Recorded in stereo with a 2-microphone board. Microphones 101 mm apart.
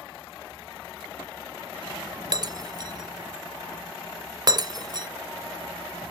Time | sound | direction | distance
2.3 | breaking glass | 40° right (ahead or behind) | 0.5 m